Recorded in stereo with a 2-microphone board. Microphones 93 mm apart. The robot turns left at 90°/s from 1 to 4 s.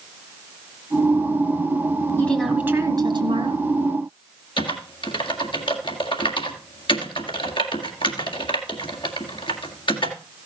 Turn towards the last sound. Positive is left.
turn(degrees=65)  # may be behind; listen again after turning